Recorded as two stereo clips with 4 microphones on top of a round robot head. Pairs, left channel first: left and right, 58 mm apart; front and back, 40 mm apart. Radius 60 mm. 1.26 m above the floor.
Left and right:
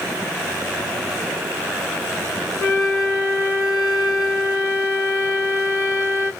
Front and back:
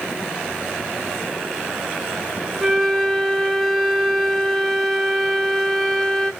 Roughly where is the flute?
Left.